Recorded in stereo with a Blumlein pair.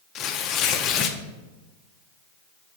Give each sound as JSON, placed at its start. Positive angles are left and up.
{"t": 0.1, "sound": "tearing paper", "azimuth_deg": 30, "distance_m": 0.6}